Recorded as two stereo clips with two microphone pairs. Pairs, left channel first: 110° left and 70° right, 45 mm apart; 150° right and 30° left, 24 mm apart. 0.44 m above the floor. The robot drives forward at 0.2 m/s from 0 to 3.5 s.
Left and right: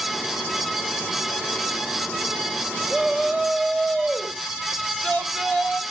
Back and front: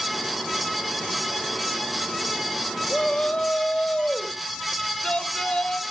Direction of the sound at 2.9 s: 160° right.